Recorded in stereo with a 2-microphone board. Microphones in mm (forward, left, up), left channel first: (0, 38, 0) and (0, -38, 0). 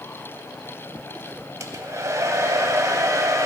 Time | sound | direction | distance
1.6 | a hair dryer | 45° right (ahead or behind) | 0.7 m